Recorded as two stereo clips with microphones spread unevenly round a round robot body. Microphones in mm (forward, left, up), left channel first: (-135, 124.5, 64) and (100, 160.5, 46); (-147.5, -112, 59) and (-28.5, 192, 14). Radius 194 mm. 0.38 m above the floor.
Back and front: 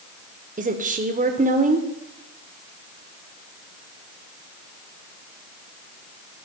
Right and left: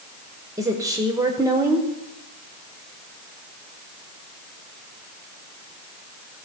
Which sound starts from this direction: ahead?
A woman speaking, at 0.6 s.